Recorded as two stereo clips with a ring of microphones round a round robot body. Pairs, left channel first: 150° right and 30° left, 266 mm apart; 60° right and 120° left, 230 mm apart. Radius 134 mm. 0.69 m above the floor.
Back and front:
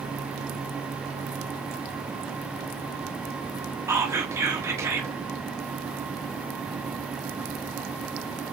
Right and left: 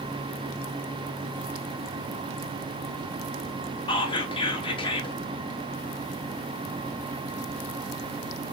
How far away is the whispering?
About 0.8 m.